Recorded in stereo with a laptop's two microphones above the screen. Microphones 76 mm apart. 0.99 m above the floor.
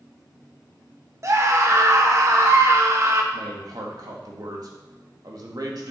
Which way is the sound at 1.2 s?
40° right (ahead or behind).